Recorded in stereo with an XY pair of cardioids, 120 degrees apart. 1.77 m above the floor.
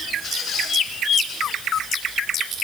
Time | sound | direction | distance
0.2 | a squeak | 60° left | 8.5 m